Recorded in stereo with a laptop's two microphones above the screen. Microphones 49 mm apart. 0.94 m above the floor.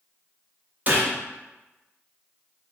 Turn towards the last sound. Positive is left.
turn(degrees=-35)  # may be behind; listen again after turning